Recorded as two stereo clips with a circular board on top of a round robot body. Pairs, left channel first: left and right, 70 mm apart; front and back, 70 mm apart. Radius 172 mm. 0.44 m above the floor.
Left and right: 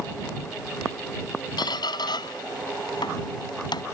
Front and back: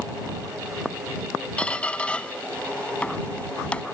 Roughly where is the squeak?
Left.